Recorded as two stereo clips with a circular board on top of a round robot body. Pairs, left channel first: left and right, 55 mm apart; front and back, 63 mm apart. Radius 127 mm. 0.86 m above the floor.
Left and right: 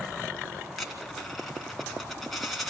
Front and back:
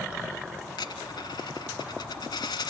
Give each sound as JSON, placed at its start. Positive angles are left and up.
{"t": 0.7, "sound": "a dropped coin", "azimuth_deg": 0, "distance_m": 2.0}